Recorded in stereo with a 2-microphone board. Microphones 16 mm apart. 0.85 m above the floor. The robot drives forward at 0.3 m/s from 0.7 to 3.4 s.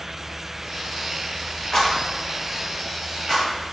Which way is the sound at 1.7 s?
20° left (ahead or behind).